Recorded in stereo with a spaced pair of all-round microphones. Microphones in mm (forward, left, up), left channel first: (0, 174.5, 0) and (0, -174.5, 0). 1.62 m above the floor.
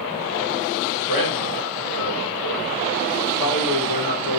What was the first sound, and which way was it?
A man speaking, 75° left (ahead or behind).